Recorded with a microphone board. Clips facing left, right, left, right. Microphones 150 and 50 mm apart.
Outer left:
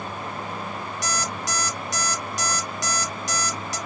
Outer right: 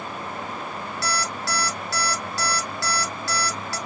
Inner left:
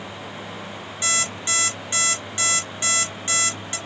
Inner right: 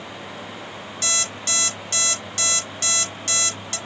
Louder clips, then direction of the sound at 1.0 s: Outer right 2 dB, inner left 3 dB; 20° left (ahead or behind).